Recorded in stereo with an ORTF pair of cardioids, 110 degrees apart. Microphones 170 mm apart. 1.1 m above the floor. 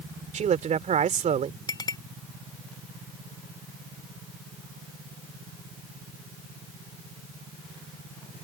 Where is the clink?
25° left.